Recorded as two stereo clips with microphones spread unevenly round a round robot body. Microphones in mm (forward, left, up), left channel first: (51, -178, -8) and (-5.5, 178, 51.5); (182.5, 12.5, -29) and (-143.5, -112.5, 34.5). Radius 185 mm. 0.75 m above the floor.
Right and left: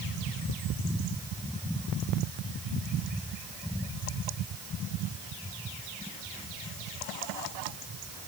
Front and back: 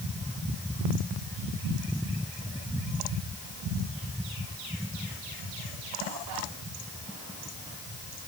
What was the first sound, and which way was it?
Only background noise.